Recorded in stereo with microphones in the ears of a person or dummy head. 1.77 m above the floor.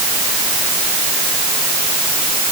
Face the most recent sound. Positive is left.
No sound to turn to.